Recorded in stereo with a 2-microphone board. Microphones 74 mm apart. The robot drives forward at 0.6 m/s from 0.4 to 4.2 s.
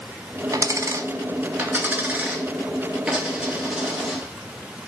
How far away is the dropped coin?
About 0.6 m.